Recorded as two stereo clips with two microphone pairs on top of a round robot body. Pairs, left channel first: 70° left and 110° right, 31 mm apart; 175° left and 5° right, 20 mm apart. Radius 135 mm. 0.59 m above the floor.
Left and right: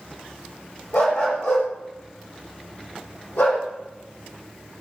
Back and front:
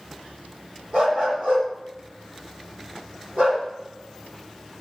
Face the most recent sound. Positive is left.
turn(degrees=50)